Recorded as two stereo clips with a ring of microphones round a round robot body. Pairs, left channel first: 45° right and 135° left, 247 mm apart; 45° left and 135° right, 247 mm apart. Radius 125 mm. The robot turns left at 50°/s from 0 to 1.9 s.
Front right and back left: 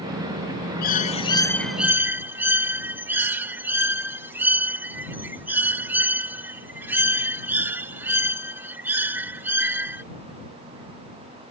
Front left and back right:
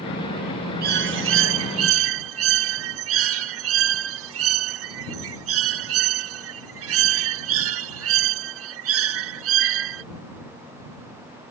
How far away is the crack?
I don't hear a crack.